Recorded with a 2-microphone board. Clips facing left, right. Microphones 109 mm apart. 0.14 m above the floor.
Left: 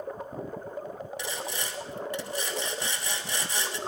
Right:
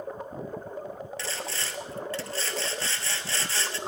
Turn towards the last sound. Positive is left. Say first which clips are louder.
# left 1 dB
turn(degrees=15)  # may be behind; listen again after turning